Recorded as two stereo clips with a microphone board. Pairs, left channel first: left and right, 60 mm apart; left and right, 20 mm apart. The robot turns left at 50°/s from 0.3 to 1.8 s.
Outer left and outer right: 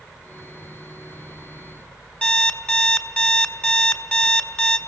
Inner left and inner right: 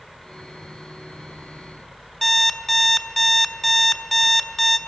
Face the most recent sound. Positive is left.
turn(degrees=20)  # may be behind; listen again after turning